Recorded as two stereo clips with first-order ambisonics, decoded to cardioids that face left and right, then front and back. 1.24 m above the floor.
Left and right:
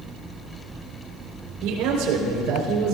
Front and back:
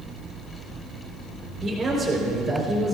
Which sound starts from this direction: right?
A man speaking, at 1.6 s.